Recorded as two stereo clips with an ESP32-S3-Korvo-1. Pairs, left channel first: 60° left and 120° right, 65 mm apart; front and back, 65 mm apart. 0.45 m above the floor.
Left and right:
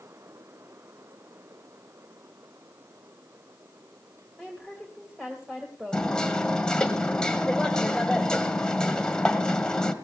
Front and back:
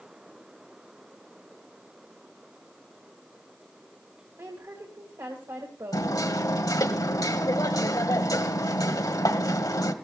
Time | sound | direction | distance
4.4 | a woman speaking | 160° left | 2.5 m
5.9 | hammering | 15° right | 1.5 m